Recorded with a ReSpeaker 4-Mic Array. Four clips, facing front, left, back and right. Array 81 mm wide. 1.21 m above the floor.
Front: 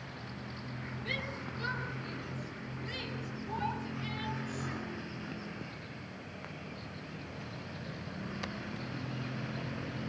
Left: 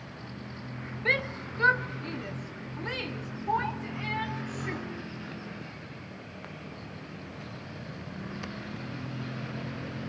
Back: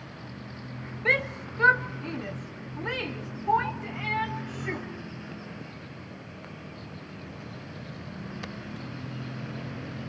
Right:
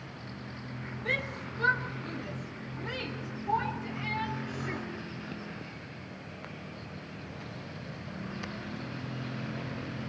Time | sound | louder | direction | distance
1.1 | a shout | left 5 dB, back 14 dB | 155° left | 1.4 m